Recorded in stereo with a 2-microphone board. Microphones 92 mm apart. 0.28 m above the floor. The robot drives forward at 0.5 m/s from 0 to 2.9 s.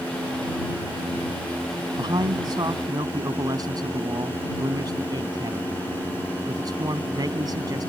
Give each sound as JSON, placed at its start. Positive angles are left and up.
{"t": 2.0, "sound": "a man speaking", "side_deg": -55}